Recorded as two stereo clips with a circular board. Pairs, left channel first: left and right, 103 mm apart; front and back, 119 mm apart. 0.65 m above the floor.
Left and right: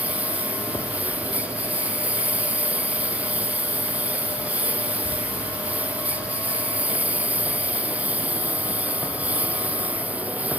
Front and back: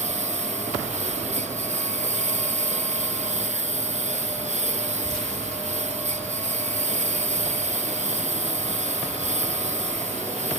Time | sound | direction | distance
0.0 | a lawn mower | 165° right | ?